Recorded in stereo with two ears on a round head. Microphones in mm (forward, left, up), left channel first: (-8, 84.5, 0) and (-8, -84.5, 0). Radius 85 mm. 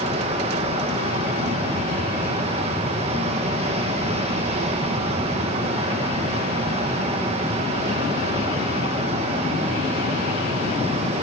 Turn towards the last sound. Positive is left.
turn(degrees=-30)  # may be behind; listen again after turning